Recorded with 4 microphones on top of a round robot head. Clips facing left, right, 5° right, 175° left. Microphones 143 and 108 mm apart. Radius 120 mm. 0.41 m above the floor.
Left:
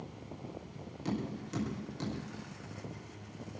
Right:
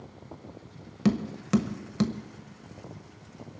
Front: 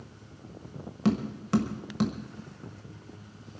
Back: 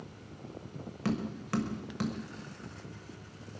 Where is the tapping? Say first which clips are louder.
Right 11 dB, front 6 dB; 75° right, 1.2 m.